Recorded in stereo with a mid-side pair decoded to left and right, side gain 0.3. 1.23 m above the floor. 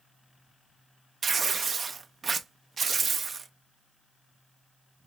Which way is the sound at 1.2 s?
55° right.